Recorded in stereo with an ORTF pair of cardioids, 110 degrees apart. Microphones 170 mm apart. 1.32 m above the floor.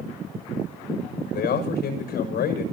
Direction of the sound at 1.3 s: 60° left.